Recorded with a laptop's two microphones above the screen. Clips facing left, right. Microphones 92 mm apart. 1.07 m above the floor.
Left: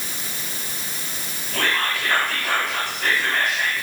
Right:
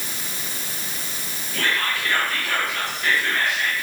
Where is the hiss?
I don't hear a hiss.